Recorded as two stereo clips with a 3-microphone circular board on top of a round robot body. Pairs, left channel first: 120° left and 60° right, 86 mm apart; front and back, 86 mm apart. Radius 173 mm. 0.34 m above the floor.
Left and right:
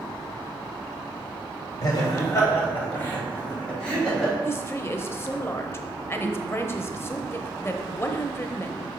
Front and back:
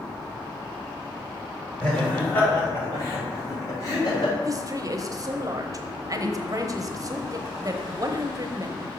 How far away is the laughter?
About 3 m.